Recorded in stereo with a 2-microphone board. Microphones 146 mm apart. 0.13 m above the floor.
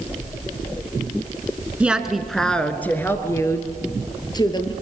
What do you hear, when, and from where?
1.8 s a woman speaking: 10° right (ahead or behind), 1.5 m; by 4.7 s 30° left (ahead or behind), 2.5 m